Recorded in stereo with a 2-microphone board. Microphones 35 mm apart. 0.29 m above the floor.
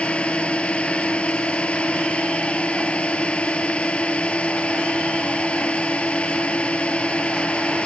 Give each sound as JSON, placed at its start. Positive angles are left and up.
{"t": 0.0, "sound": "a drone", "side_deg": 35}